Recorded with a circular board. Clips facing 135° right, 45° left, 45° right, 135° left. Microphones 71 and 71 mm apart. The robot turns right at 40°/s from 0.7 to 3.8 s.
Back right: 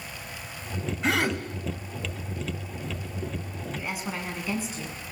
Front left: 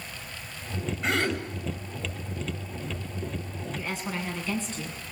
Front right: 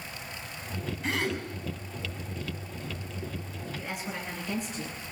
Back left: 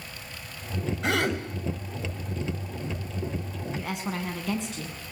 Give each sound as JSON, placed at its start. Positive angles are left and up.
{"t": 1.0, "sound": "a gasp", "azimuth_deg": 135, "distance_m": 3.5}
{"t": 3.8, "sound": "a woman speaking", "azimuth_deg": 145, "distance_m": 6.5}